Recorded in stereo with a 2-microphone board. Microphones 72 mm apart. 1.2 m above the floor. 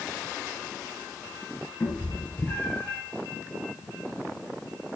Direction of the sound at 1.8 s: 25° left (ahead or behind).